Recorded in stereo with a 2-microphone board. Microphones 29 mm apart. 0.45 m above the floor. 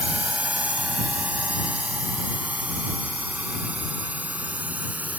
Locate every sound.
0.0 s a drone: 55° right (ahead or behind); by 5.2 s 65° right (ahead or behind)